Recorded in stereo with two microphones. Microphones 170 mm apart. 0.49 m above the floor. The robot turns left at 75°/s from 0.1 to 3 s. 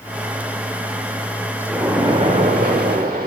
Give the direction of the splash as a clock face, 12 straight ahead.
12 o'clock.